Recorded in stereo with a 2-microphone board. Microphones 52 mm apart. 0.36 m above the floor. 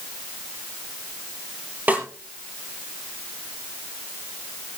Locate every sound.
1.9 s a snare drum: 40° right (ahead or behind), 6 m